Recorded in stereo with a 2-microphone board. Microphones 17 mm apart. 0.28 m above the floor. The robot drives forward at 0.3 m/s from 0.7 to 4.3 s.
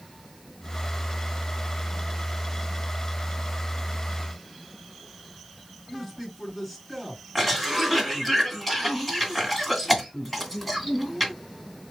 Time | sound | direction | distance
5.9 | a man speaking | 15° left (ahead or behind) | 3.5 m
7.3 | a cough | 15° left (ahead or behind) | 2.5 m